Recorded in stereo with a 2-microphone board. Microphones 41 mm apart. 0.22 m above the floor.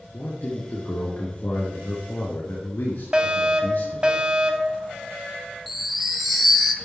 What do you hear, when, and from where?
0.1 s a man speaking: 65° left (ahead or behind), 3.5 m
3.1 s a fire alarm: 20° right (ahead or behind), 2.5 m
5.7 s a chime: centre (ahead or behind), 1.5 m